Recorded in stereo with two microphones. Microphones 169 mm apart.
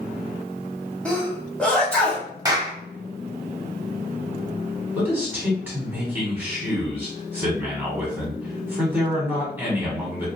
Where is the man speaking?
10° right (ahead or behind), 1.6 m.